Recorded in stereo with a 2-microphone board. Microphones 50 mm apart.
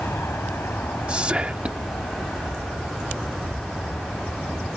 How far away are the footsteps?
No footsteps in this recording.